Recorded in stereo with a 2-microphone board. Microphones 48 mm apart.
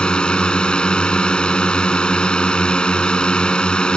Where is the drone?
20° left (ahead or behind).